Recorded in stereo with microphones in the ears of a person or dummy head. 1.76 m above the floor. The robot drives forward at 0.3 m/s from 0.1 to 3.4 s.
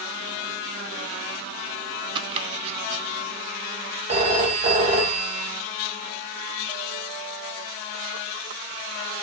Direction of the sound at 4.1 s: 40° right (ahead or behind).